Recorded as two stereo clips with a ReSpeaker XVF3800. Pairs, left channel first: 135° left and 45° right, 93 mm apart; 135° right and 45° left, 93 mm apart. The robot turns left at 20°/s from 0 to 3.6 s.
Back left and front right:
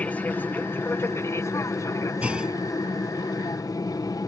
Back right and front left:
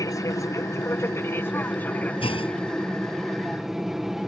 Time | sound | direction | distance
0.0 | an aircraft | 155° right | ?
2.2 | a clunk | 120° right | ?